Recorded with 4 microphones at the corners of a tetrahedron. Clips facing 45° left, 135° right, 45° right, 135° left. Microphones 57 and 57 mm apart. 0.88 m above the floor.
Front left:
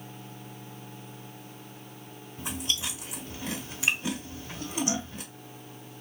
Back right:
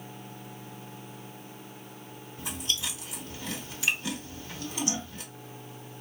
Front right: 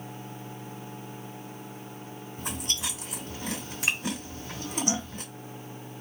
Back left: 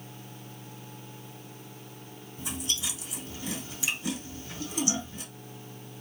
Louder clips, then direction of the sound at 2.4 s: Front left 1 dB, front right 1 dB; 20° right.